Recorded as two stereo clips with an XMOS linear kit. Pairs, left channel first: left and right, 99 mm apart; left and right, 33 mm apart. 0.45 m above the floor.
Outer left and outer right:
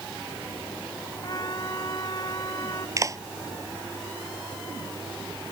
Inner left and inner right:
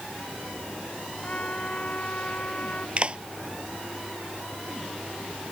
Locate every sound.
1.2 s a trumpet: 40° left (ahead or behind)
3.0 s a clap: 35° right (ahead or behind)